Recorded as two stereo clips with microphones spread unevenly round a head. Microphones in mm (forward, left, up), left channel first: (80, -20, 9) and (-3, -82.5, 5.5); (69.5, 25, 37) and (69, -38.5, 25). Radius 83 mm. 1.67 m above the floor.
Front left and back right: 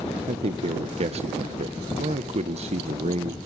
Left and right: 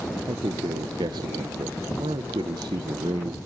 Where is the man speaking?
130° right, 1.2 m.